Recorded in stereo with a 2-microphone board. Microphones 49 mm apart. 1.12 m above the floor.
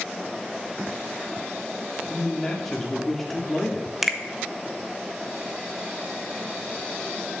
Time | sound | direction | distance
2.1 | a man speaking | 5° left (ahead or behind) | 3 m
4.0 | a finger snap | 5° right (ahead or behind) | 1.1 m